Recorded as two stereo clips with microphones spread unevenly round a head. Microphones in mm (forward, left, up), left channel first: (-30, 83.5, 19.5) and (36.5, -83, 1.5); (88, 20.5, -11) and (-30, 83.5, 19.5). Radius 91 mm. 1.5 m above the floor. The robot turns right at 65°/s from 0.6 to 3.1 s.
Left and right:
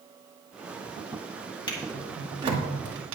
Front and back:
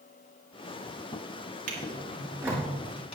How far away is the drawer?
About 2 m.